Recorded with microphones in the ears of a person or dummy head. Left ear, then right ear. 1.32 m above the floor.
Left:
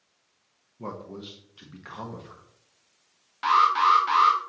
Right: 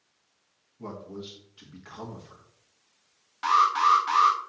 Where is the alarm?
Centre (ahead or behind), 1.0 m.